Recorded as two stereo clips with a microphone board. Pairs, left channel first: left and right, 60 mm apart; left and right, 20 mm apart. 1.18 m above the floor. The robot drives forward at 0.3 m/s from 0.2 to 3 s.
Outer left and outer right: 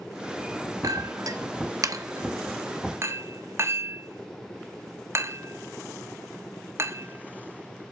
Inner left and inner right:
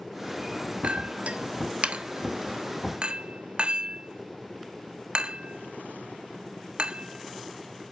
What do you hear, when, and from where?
0.8 s a clink: 70° right (ahead or behind), 0.7 m; by 7.9 s 45° right (ahead or behind), 0.9 m